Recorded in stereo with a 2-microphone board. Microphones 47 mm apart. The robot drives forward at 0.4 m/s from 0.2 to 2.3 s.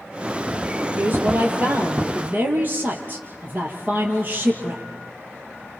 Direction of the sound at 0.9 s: 40° right (ahead or behind).